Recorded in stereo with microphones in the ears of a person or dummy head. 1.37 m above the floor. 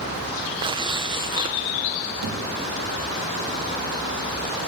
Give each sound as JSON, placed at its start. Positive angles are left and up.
{"t": 0.6, "sound": "tearing paper", "side_deg": -25, "distance_m": 1.1}
{"t": 2.2, "sound": "a thud", "side_deg": -65, "distance_m": 5.0}